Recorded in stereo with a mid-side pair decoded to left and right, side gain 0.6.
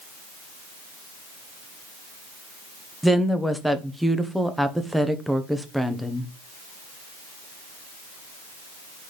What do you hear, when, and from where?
3.0 s a woman speaking: 5° right, 1.3 m